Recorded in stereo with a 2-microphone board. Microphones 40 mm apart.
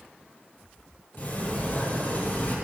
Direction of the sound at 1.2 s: 50° left (ahead or behind).